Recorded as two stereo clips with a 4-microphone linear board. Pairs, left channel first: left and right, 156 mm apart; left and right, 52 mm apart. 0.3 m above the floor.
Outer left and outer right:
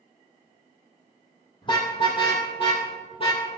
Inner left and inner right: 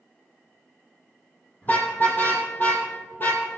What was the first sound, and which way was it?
A car horn, 30° left (ahead or behind).